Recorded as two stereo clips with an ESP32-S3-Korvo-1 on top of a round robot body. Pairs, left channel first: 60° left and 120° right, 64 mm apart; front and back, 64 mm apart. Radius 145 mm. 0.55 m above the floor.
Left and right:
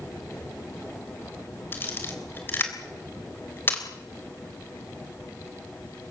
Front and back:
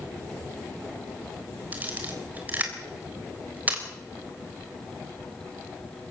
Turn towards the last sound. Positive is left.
turn(degrees=115)